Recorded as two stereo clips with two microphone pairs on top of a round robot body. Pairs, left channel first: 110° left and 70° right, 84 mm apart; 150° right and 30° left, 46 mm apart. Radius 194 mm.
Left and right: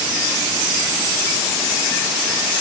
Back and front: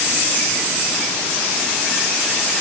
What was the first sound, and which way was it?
Only background noise.